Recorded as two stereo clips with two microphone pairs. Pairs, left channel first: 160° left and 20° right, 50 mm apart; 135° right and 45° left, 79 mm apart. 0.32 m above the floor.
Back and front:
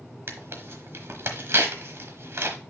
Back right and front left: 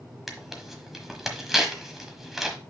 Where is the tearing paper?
40° right, 1.2 m.